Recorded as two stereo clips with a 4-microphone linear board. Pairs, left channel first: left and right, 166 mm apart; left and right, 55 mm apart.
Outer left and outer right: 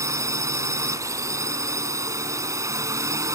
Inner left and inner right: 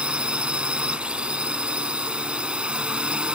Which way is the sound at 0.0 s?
20° right (ahead or behind).